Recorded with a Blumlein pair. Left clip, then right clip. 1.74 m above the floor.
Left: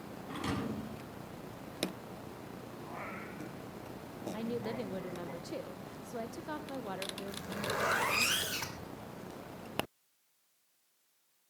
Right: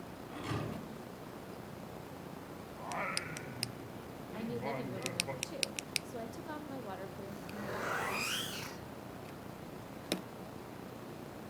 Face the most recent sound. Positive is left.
turn(degrees=65)